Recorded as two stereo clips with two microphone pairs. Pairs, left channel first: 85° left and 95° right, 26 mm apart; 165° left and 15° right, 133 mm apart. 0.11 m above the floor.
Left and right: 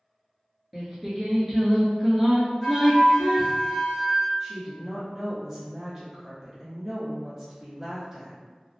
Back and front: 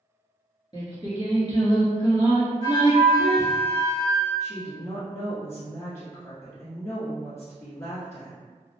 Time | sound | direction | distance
0.7 | singing | straight behind | 0.9 m
2.6 | a flute | 140° left | 1.7 m
4.4 | a woman speaking | 145° right | 1.2 m